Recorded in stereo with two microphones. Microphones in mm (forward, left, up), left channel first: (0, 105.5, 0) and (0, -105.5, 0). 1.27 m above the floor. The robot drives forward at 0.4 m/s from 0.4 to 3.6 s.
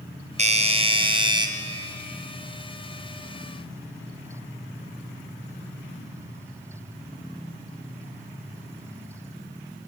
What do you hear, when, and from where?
0.4 s a doorbell: 30° right (ahead or behind), 0.6 m; by 1.5 s 20° right (ahead or behind), 1.0 m